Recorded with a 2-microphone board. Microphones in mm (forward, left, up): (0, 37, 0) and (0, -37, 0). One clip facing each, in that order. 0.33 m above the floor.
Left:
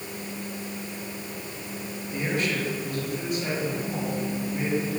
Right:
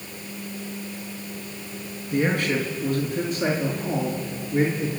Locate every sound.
2.1 s a man speaking: 60° right (ahead or behind), 4 m; by 4.9 s 75° right (ahead or behind), 5 m